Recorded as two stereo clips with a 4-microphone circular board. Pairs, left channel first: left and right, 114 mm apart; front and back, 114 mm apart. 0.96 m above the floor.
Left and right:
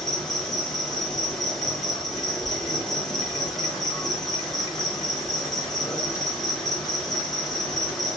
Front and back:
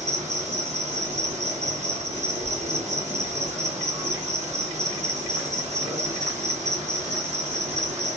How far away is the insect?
About 1.0 m.